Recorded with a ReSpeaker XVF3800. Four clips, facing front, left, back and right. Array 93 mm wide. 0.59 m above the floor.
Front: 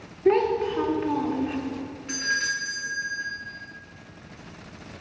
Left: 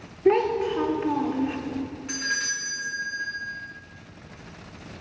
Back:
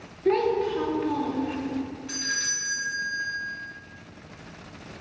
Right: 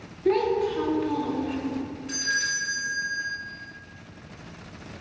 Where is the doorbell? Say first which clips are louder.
Right 3 dB, front 5 dB; 35° left, 1.6 m.